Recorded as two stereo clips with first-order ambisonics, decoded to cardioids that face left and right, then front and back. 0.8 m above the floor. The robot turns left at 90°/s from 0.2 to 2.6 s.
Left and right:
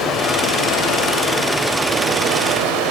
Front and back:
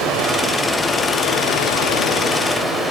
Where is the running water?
135° left, 1.5 m; by 2.9 s 80° right, 1.5 m.